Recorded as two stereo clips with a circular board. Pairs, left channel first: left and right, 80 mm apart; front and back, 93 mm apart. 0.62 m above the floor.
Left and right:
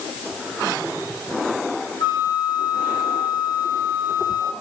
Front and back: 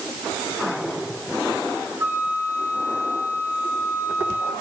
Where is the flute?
115° left, 4.5 m.